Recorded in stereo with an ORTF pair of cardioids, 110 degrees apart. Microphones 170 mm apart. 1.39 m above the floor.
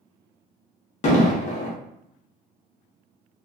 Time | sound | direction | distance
1.0 | an explosion | 45° left | 0.9 m